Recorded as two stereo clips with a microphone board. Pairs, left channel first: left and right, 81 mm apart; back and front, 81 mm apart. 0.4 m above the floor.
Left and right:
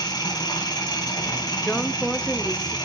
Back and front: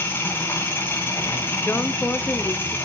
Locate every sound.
0.0 s an engine running: 120° left, 4 m
1.6 s a woman speaking: 160° left, 0.9 m